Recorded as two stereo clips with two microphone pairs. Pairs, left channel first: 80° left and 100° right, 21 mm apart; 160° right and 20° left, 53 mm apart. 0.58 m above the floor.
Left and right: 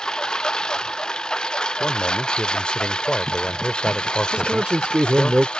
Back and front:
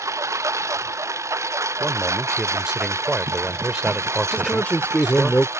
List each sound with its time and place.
0.0 s a lawn mower: 35° left; by 5.6 s 45° left
1.8 s a man speaking: 90° left
4.3 s a man speaking: 105° right